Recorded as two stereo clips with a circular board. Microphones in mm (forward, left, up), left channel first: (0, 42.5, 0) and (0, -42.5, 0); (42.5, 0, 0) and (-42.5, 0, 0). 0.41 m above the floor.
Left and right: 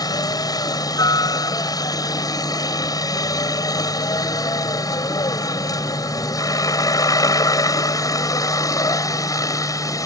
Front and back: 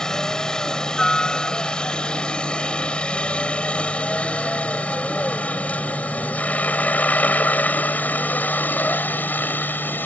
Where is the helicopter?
80° left; by 10.1 s 60° left.